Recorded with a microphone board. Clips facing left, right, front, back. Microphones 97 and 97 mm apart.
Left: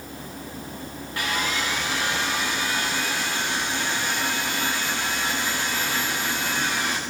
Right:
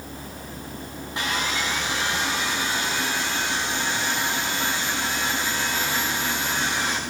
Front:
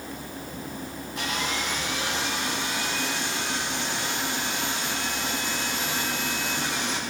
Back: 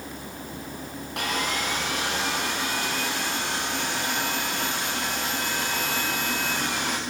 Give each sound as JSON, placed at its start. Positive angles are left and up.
{"t": 1.2, "sound": "sawing", "azimuth_deg": -160, "distance_m": 7.5}